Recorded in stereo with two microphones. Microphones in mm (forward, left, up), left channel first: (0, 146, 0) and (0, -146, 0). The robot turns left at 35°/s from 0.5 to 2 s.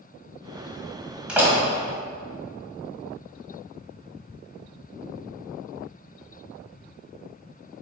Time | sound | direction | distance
1.3 | a door slam | 5° right (ahead or behind) | 1.8 m